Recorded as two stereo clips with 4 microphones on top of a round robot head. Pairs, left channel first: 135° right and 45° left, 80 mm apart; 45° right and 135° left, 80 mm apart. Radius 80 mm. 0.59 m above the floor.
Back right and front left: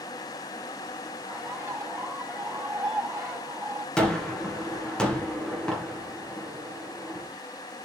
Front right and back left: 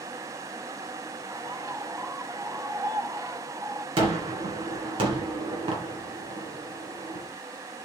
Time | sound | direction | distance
1.3 | a bird | 105° left | 3.5 m
4.0 | a gunshot | 145° left | 2.5 m